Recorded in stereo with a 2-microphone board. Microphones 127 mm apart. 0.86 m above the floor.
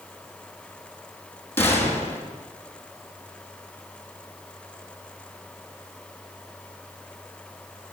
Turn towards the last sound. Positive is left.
turn(degrees=15)  # may be behind; listen again after turning